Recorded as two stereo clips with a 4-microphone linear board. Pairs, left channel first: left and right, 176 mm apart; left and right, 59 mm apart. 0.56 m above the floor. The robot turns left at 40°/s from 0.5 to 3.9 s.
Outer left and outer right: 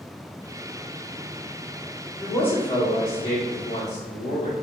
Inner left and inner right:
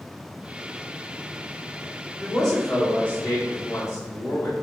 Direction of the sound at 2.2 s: Straight behind.